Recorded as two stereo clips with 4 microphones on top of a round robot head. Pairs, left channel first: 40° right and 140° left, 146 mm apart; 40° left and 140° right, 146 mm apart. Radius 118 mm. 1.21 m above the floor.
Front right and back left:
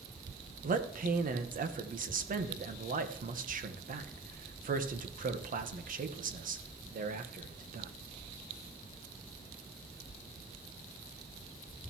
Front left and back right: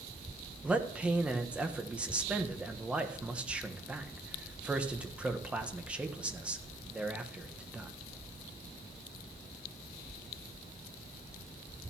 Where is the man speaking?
135° left, 1.2 m.